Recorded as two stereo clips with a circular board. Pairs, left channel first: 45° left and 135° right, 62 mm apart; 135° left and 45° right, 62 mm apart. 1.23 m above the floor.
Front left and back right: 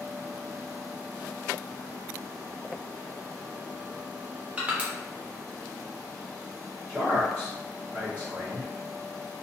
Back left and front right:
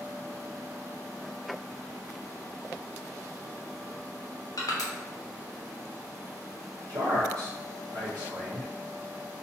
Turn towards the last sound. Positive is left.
turn(degrees=-45)